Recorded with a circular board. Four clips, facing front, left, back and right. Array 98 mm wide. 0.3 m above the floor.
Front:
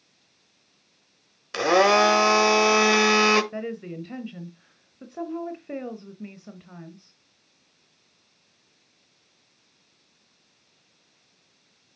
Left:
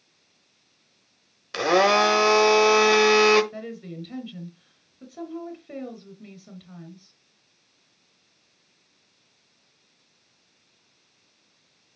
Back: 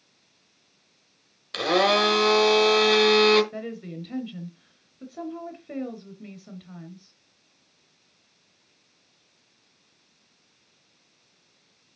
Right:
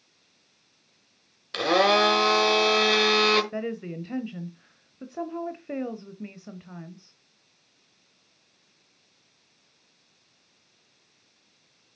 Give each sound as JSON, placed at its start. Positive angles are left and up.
{"t": 1.5, "sound": "a blender", "azimuth_deg": 35, "distance_m": 1.0}
{"t": 3.5, "sound": "a woman speaking", "azimuth_deg": -65, "distance_m": 1.0}